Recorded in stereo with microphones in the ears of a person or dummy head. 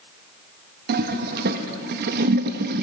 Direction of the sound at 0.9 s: 55° right (ahead or behind).